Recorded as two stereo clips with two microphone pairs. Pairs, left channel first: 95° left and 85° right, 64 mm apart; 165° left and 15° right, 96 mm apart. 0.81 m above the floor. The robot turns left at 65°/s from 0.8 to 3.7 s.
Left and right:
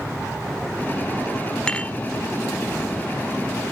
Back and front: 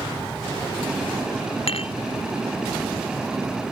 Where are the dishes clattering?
175° left; by 1.9 s 155° left.